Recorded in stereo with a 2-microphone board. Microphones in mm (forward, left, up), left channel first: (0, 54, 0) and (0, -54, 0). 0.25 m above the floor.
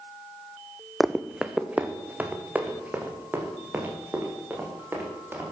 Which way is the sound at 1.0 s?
Centre (ahead or behind).